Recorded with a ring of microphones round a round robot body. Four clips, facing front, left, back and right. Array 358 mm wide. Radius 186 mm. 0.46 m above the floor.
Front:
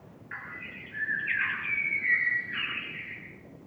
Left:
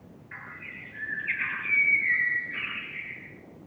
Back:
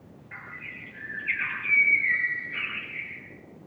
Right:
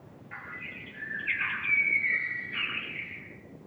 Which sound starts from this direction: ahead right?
A bird, at 0.3 s.